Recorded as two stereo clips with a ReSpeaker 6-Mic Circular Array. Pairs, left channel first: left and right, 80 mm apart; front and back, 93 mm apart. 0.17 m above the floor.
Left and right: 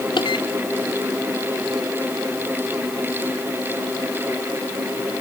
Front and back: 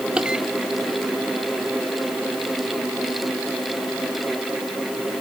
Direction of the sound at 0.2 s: 100° left.